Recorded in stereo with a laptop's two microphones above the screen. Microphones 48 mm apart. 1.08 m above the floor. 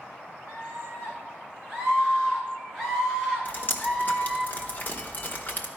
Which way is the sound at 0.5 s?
15° right (ahead or behind).